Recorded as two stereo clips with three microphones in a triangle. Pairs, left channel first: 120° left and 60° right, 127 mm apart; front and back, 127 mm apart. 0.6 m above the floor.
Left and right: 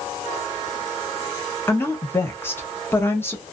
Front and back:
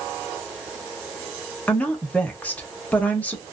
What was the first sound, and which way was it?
A woman speaking, 65° left.